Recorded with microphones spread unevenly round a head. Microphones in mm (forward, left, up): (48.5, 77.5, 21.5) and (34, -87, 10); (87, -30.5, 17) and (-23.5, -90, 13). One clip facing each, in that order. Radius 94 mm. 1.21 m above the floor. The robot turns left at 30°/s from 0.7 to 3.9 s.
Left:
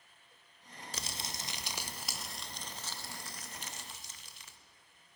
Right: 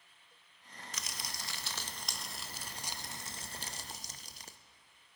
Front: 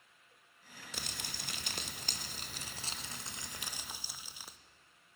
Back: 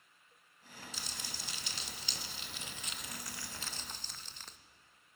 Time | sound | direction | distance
0.9 | crumpling | 40° left | 0.6 m